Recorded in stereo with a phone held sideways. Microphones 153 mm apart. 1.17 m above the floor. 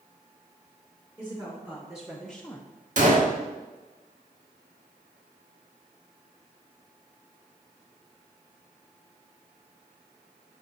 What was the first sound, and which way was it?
A woman speaking, 10° right (ahead or behind).